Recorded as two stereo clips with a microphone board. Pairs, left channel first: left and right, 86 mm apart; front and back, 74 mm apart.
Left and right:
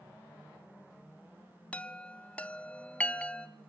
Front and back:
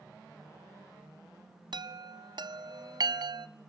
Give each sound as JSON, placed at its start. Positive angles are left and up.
{"t": 1.7, "sound": "a chime", "azimuth_deg": 165, "distance_m": 0.5}